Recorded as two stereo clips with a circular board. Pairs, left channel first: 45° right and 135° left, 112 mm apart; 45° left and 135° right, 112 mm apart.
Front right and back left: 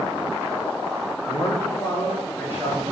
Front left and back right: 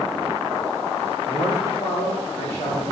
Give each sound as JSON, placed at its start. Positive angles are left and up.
{"t": 1.3, "sound": "a man speaking", "azimuth_deg": 10, "distance_m": 3.0}